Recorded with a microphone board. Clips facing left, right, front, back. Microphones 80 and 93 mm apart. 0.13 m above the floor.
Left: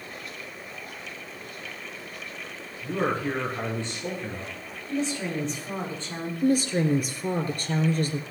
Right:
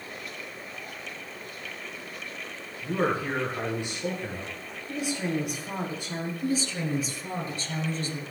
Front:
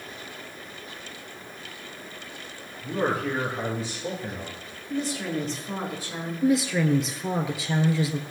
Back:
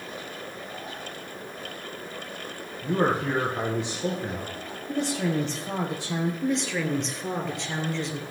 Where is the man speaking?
165° right, 6 m.